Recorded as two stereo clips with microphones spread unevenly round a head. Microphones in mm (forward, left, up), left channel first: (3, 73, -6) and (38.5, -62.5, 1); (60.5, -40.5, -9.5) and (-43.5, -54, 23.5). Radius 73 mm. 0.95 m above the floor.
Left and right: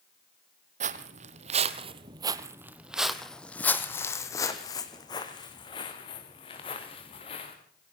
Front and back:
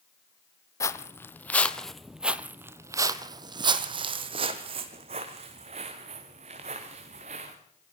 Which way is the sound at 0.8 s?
60° right.